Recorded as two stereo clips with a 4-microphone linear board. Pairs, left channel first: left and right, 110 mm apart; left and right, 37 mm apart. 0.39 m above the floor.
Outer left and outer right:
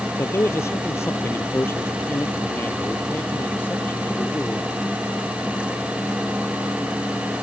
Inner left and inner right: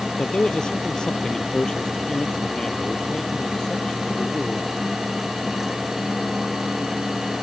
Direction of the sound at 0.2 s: 25° left (ahead or behind).